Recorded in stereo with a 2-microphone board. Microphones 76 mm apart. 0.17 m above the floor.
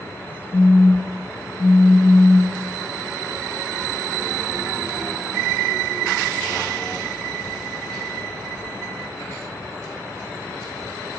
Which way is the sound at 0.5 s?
20° left (ahead or behind).